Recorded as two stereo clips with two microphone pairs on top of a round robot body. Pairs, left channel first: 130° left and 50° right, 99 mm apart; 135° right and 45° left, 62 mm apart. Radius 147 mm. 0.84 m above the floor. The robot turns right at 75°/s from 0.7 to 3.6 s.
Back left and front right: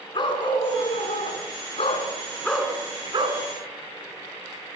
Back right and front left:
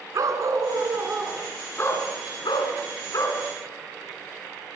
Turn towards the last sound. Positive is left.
turn(degrees=-60)